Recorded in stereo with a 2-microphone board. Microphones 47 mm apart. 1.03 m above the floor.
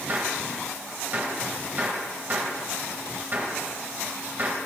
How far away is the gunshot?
About 3.5 m.